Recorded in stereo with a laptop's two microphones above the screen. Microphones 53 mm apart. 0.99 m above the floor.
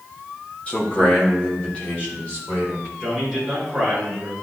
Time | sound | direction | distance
0.7 | a man speaking | 25° left (ahead or behind) | 1.6 m
3.0 | a man speaking | 5° left (ahead or behind) | 4 m